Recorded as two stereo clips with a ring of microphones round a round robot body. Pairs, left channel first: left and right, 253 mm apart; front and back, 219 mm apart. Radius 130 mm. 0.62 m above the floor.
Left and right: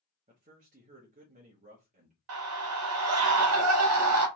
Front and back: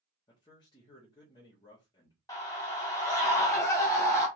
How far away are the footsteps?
I don't hear footsteps.